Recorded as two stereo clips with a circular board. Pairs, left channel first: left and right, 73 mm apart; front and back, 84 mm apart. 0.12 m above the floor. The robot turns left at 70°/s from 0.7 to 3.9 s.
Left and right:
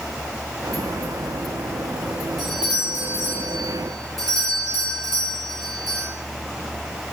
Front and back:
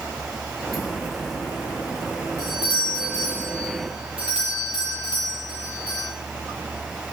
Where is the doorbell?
5° left, 5 m; by 6.1 s 105° right, 5 m.